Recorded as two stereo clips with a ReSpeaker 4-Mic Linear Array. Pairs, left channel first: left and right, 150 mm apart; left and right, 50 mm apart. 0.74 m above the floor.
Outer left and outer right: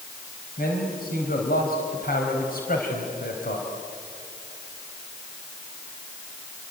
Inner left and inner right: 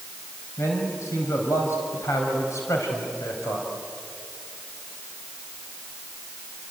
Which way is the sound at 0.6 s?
75° left (ahead or behind).